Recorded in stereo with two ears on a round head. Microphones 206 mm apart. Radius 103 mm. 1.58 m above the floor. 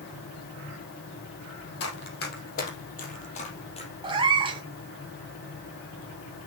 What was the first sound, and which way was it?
Running footsteps, 50° left (ahead or behind).